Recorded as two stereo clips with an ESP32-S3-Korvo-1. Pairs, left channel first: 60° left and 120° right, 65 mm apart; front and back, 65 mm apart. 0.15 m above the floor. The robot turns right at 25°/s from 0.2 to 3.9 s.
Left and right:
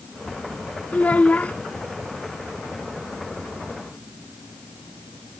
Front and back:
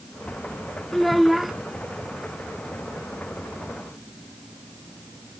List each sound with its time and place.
0.9 s a child speaking: 85° left; by 1.5 s 100° left